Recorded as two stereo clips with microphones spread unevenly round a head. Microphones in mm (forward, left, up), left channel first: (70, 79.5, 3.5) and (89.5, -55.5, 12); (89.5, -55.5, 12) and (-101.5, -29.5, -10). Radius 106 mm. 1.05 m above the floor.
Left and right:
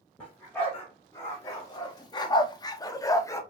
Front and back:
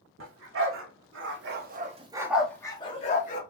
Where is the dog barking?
175° right, 1.2 m; by 3.4 s 30° left, 0.8 m.